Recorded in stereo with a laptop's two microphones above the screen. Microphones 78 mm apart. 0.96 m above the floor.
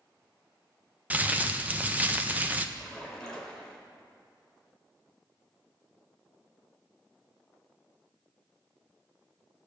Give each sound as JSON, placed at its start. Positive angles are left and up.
{"t": 1.1, "sound": "crumpling", "side_deg": -20, "distance_m": 0.6}
{"t": 2.8, "sound": "a splash", "side_deg": 5, "distance_m": 1.5}